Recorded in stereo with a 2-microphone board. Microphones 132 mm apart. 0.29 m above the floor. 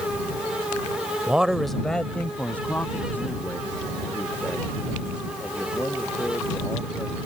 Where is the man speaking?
10° right (ahead or behind); by 7.2 s 15° left (ahead or behind).